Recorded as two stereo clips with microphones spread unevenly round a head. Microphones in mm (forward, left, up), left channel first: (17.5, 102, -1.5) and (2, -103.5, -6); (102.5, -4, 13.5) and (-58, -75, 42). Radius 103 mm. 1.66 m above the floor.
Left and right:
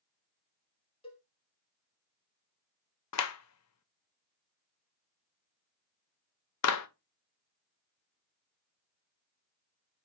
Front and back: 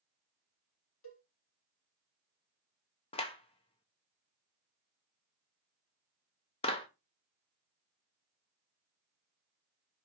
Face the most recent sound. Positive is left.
turn(degrees=90)